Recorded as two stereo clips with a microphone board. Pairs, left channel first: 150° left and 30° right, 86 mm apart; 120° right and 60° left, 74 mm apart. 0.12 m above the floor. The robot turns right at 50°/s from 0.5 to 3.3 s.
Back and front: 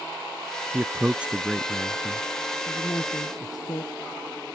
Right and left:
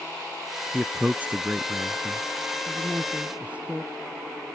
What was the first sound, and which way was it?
A man speaking, straight ahead.